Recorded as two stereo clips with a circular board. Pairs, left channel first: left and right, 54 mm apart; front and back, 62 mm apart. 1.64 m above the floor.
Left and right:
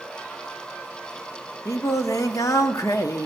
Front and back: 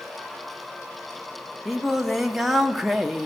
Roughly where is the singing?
Left.